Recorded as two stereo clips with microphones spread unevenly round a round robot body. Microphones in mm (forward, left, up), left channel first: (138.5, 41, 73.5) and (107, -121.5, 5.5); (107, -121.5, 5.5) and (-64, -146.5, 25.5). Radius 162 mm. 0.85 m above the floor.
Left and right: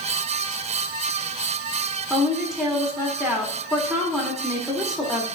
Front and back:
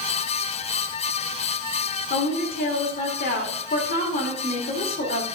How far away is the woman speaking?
About 2.5 m.